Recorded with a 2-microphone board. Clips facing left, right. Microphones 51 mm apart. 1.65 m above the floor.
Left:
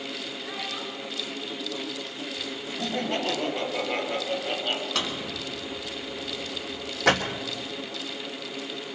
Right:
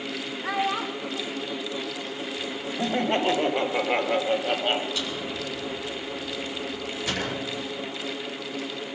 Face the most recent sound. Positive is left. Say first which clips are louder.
# even
turn(degrees=70)  # may be behind; listen again after turning